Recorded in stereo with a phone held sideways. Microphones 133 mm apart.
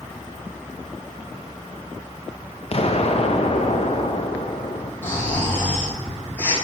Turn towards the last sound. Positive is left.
turn(degrees=15)  # may be behind; listen again after turning